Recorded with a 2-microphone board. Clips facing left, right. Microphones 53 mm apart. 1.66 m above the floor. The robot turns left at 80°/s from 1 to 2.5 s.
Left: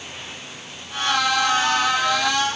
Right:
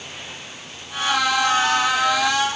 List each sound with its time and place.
Only background noise.